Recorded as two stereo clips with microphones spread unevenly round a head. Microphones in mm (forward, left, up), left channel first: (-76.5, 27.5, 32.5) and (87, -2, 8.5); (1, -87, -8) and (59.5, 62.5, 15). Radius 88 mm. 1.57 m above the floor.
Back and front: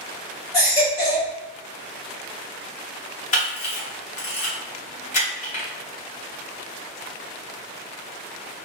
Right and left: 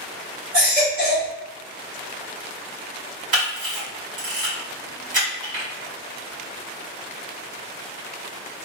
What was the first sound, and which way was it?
A baby crying, 110° left.